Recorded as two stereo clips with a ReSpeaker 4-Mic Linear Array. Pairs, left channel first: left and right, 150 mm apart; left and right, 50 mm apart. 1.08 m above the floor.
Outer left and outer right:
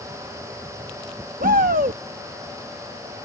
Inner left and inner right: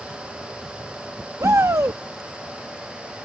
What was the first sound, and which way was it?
A shout, 80° right.